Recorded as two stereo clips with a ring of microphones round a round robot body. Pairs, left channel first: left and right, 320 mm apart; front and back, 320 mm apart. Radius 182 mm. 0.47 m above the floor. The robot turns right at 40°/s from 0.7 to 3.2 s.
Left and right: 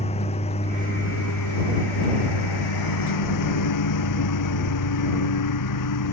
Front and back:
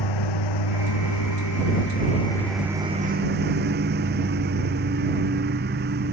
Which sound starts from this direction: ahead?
A lawn mower, at 0.0 s.